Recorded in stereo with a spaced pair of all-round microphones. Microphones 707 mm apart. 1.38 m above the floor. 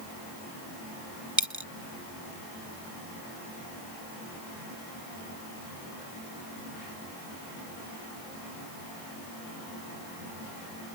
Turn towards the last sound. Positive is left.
turn(degrees=-25)  # may be behind; listen again after turning